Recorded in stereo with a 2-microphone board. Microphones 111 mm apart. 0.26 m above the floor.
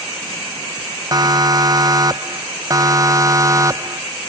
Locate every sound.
1.1 s a siren: 35° right (ahead or behind); by 4.0 s 30° right (ahead or behind)